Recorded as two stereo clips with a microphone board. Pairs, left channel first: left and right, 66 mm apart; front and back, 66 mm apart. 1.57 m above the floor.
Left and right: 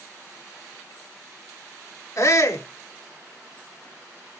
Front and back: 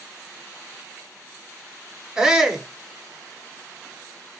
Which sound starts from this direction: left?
A shout, at 2.2 s.